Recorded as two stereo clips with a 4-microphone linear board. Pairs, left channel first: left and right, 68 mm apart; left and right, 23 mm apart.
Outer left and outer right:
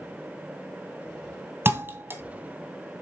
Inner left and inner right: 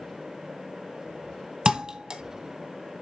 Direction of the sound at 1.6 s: 35° right (ahead or behind).